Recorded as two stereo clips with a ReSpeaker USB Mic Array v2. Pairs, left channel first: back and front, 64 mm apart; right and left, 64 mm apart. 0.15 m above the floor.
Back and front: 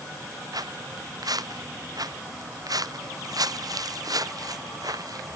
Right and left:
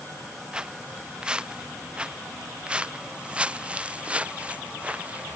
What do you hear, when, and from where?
0.5 s footsteps: 10° left; by 5.4 s 20° left